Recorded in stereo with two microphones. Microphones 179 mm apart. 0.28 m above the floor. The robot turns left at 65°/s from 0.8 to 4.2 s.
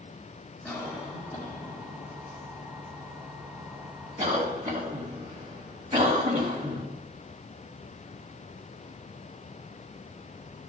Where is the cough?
5° right (ahead or behind), 2 m; by 6.8 s 25° right (ahead or behind), 2 m.